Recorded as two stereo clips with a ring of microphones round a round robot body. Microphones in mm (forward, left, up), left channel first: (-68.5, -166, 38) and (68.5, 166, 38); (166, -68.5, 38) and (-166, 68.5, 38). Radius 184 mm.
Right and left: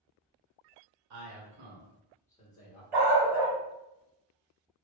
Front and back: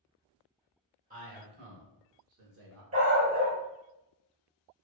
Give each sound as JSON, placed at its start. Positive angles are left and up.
{"t": 1.1, "sound": "a man speaking", "azimuth_deg": 95, "distance_m": 1.2}
{"t": 2.9, "sound": "a dog barking", "azimuth_deg": 90, "distance_m": 1.2}